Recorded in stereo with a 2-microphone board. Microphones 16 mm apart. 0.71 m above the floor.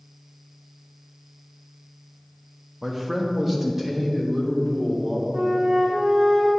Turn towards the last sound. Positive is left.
turn(degrees=-55)  # may be behind; listen again after turning